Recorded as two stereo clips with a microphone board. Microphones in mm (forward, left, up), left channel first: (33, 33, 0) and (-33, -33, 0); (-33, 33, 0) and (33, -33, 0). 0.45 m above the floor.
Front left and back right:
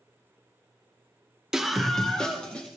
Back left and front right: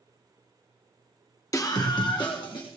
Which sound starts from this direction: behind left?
A scream, at 1.5 s.